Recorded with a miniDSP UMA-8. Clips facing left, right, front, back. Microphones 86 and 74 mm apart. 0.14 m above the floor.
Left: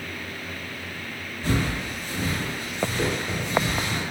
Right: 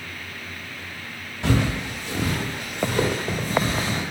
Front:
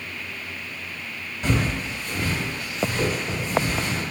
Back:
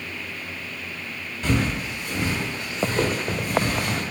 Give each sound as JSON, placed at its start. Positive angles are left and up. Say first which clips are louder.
{"t": 1.4, "sound": "footsteps", "louder": "right 3 dB, back 1 dB", "azimuth_deg": -85, "distance_m": 1.3}